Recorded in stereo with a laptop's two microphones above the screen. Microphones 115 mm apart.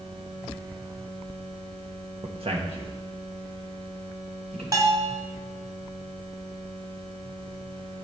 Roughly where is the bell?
Right.